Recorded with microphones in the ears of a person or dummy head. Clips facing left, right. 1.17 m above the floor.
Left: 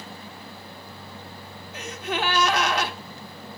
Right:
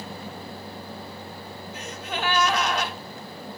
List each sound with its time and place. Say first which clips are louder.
1.7 s a gasp: left 5 dB; 60° left (ahead or behind), 1.3 m